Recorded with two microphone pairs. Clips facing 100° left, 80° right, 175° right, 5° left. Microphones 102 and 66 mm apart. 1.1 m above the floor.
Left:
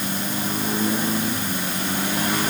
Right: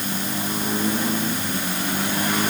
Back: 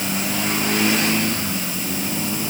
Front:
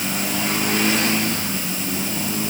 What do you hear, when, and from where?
Only background noise.